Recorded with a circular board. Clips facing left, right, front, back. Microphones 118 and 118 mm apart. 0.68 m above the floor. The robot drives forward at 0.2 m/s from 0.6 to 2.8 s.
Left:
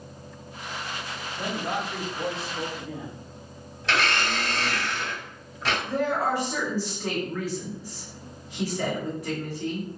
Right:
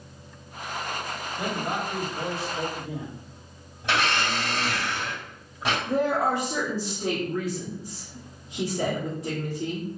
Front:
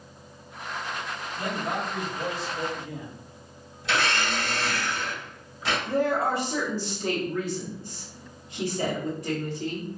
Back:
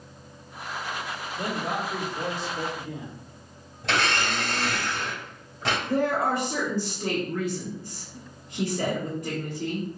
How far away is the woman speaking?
About 1.9 m.